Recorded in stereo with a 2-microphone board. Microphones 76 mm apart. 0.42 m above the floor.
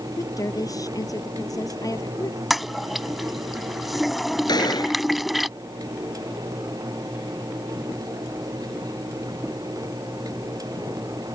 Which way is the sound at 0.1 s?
55° left (ahead or behind).